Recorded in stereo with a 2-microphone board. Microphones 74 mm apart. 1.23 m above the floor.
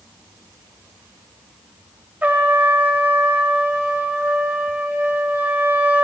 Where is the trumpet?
20° right (ahead or behind), 1.0 m.